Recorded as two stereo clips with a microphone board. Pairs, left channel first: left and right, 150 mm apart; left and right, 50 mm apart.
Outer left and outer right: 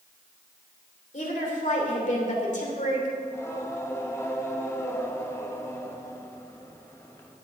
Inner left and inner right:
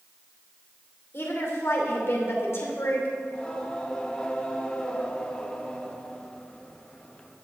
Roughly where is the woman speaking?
Left.